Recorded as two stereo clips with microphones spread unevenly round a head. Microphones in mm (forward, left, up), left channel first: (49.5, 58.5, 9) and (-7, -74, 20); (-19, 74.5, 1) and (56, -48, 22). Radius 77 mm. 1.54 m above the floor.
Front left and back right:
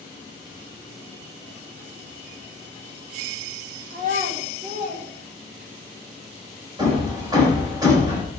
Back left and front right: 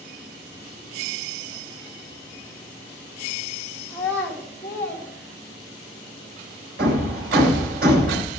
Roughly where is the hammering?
Ahead right.